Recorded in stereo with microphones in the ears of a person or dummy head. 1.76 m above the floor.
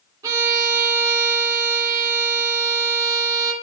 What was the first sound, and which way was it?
A violin, 10° right (ahead or behind).